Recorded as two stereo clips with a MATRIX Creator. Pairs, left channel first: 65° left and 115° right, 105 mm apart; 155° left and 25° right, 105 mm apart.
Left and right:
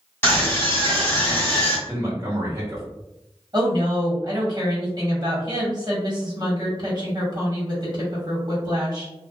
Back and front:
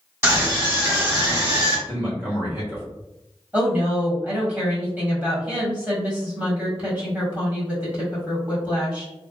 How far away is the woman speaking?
About 1.6 m.